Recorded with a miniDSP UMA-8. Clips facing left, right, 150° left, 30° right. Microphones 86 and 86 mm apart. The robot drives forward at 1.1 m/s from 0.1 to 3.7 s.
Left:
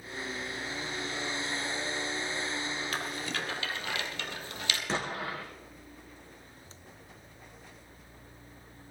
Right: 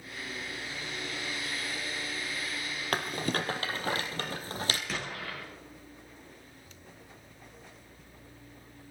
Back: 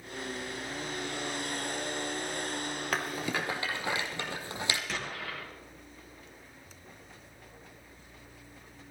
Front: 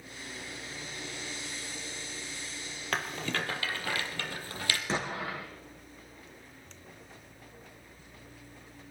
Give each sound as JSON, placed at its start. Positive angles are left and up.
{"t": 2.9, "sound": "a rattle", "azimuth_deg": -125, "distance_m": 2.0}
{"t": 4.9, "sound": "an explosion", "azimuth_deg": 30, "distance_m": 3.0}